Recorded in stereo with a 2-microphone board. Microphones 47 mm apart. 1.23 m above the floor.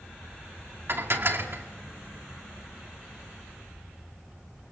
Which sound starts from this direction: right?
Dishes clattering, at 0.9 s.